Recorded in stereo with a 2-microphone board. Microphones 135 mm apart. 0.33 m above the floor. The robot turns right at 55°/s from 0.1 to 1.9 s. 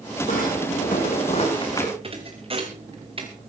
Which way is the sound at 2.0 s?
45° right (ahead or behind).